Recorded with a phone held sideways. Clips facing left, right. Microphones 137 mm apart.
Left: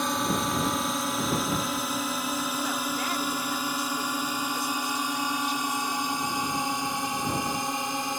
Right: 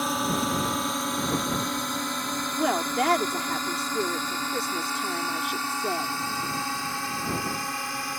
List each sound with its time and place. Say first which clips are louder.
0.0 s a drone: right 1 dB; centre (ahead or behind); by 8.2 s 20° left (ahead or behind)
2.5 s a woman speaking: right 5 dB; 70° right (ahead or behind)